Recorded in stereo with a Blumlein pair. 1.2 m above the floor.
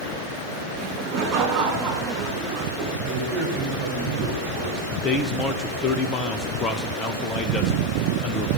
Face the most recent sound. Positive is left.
turn(degrees=20)